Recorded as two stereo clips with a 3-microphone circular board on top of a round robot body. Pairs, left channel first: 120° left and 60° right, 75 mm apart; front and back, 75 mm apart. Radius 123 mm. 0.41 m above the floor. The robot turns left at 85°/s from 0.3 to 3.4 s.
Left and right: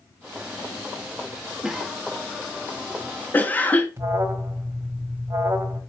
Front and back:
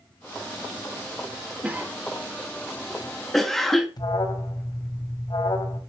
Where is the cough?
125° right, 0.8 m; by 3.9 s 80° left, 0.8 m.